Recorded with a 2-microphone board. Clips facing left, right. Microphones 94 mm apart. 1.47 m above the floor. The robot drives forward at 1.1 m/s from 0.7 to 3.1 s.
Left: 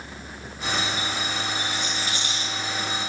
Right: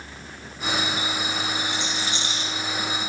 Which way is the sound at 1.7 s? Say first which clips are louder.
Right 1 dB; 25° right (ahead or behind).